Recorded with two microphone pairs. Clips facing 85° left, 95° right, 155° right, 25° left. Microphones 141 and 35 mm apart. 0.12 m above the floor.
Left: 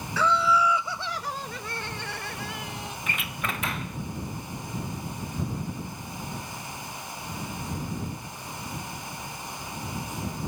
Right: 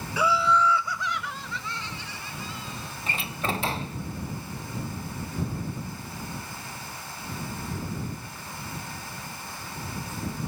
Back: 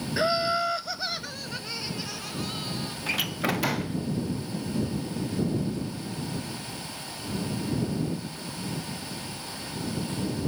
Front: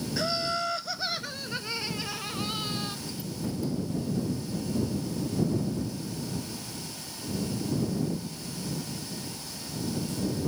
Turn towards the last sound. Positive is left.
turn(degrees=-155)